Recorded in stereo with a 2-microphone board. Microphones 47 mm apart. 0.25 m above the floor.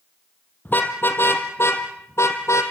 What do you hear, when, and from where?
0.7 s a car horn: 40° left (ahead or behind), 3.5 m; by 2.6 s 75° left (ahead or behind), 3.5 m